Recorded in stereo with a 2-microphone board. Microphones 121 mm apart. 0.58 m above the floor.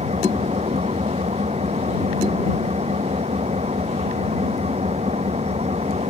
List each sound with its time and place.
0.0 s an engine running: 65° right (ahead or behind)